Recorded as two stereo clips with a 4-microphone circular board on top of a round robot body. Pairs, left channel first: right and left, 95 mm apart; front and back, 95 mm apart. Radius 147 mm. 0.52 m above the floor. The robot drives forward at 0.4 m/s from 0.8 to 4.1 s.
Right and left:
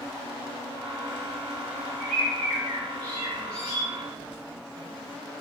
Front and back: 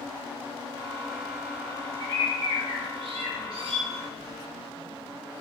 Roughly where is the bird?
Behind.